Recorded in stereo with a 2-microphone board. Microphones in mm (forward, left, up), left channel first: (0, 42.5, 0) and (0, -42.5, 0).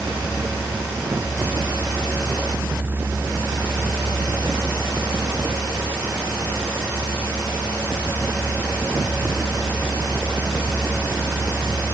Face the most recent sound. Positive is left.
No sound to turn to.